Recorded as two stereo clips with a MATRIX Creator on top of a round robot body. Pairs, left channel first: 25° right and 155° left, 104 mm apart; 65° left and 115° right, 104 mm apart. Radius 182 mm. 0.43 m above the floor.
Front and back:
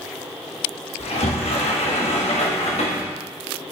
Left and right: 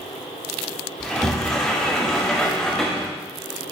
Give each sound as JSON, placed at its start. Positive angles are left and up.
{"t": 1.0, "sound": "a sliding door", "azimuth_deg": -20, "distance_m": 1.8}